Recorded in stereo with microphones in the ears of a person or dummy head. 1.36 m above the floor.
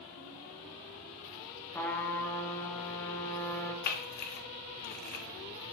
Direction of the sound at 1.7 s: 10° left (ahead or behind).